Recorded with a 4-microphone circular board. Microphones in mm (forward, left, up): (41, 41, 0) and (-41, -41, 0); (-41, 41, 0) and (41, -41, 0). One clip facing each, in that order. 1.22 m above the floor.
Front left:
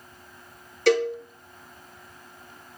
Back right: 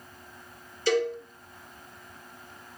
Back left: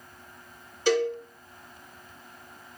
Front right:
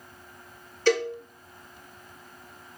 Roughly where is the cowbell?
Ahead left.